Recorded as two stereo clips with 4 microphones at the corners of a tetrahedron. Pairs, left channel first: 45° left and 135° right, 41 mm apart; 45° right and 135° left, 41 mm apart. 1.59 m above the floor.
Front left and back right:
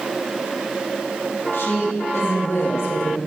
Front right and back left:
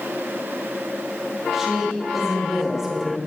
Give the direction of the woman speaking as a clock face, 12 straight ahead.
10 o'clock.